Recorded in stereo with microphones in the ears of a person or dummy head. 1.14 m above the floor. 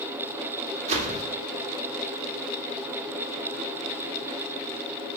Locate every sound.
0.9 s a whoosh: 40° right (ahead or behind), 2 m